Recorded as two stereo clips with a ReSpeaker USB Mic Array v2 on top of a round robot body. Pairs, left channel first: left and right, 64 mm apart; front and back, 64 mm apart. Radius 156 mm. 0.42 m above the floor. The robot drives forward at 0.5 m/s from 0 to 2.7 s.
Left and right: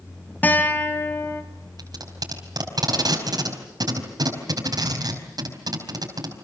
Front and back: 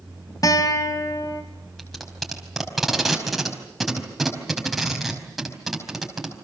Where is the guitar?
25° left, 2.5 m; by 1.4 s 35° left, 2 m.